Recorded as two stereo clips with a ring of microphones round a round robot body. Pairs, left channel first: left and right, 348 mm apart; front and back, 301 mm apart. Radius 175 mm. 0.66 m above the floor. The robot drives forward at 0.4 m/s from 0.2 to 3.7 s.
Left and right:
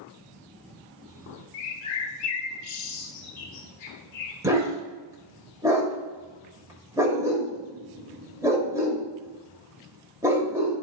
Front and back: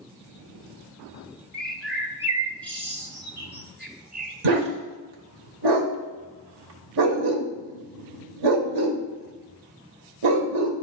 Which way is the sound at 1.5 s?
85° left.